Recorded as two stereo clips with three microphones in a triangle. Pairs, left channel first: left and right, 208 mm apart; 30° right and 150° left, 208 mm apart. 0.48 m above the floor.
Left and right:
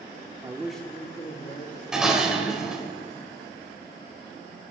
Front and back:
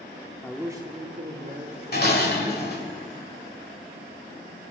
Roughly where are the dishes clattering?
Ahead.